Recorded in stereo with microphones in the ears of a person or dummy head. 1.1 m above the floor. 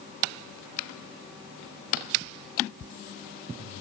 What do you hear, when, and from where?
Only background noise.